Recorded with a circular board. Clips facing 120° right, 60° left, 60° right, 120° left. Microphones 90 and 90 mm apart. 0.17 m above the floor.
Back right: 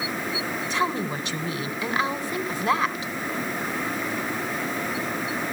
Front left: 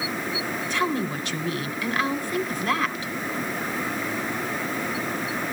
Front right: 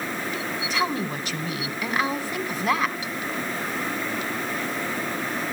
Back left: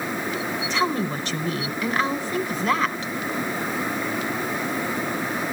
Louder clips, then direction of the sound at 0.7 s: Even, back left 2 dB; 135° right.